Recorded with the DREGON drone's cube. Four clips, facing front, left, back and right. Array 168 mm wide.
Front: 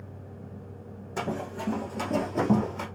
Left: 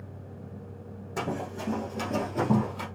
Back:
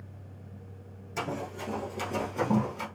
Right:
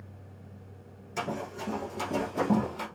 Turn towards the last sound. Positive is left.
turn(degrees=-5)